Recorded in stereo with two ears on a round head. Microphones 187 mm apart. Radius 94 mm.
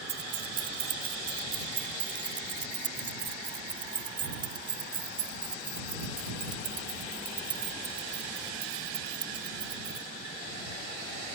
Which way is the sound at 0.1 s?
30° right (ahead or behind).